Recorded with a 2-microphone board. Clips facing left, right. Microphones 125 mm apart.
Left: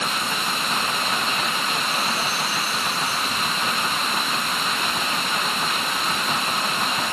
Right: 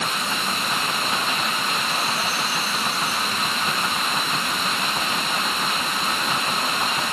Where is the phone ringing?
I don't hear a phone ringing.